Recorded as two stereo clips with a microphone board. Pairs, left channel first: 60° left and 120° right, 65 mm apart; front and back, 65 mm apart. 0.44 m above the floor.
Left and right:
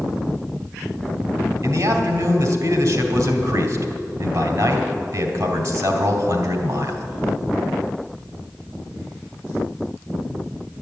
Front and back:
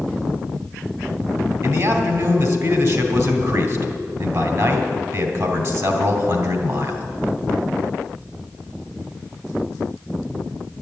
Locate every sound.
1.6 s a man speaking: 155° right, 2.5 m